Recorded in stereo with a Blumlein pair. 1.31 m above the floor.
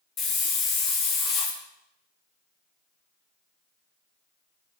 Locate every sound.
0.2 s a hiss: 25° left, 0.7 m